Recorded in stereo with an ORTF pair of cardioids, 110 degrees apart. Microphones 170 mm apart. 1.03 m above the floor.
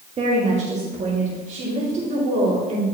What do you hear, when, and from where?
0.2 s a woman speaking: 40° right, 1.5 m; by 2.8 s 45° right, 3 m